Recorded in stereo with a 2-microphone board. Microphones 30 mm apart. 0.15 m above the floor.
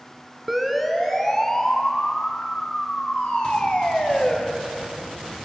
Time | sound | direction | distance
0.5 | a siren | 5° right (ahead or behind) | 2 m